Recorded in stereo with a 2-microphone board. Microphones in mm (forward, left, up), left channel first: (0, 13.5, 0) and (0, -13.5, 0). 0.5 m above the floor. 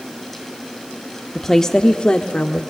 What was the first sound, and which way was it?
A woman speaking, 10° left (ahead or behind).